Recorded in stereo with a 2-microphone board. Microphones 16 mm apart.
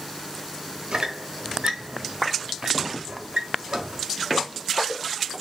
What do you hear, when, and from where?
0.9 s a squeak: 65° right (ahead or behind), 0.8 m